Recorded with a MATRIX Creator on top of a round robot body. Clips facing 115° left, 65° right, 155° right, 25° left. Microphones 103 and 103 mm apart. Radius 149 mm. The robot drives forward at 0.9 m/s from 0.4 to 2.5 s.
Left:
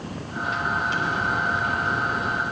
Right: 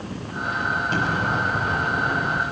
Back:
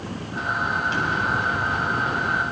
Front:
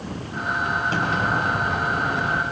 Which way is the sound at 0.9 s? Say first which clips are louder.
Right 2 dB, front 1 dB; 25° right.